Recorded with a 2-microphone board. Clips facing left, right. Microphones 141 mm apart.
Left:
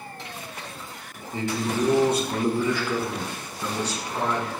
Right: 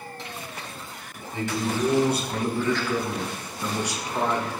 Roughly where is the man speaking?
Left.